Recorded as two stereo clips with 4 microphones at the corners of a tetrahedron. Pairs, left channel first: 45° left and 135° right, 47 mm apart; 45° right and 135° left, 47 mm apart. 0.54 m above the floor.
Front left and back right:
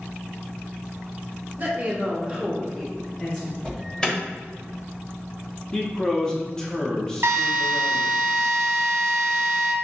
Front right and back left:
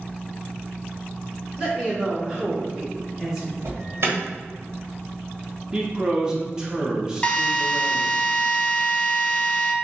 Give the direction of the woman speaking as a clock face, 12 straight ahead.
5 o'clock.